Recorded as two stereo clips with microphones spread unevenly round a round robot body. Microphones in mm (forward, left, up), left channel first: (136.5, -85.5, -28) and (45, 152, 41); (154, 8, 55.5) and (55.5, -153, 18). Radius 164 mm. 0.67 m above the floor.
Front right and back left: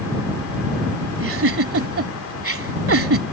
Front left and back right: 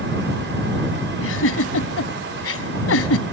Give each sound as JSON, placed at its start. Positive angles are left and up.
{"t": 1.2, "sound": "a giggle", "azimuth_deg": 75}